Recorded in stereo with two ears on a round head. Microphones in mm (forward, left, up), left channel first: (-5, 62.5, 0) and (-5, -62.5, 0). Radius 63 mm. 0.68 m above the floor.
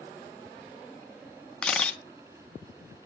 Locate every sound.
1.6 s a camera shutter: 10° left (ahead or behind), 0.9 m